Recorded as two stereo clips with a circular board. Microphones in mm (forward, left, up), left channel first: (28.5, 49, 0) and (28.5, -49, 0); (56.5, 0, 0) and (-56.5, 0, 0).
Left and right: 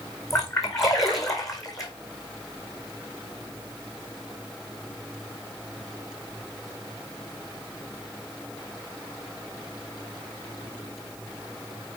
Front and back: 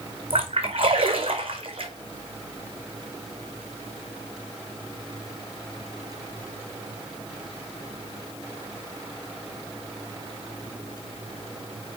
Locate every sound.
0.3 s a splash: 140° left, 1.7 m